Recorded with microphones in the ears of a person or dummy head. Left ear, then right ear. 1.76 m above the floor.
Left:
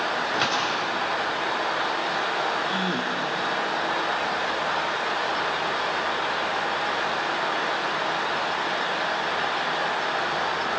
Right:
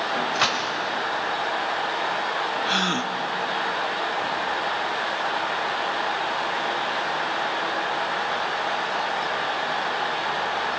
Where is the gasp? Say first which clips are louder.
Right 3 dB; 50° right (ahead or behind), 0.9 m.